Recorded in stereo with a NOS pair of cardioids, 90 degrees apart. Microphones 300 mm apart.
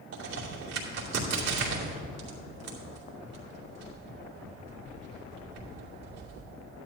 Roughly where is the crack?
Ahead right.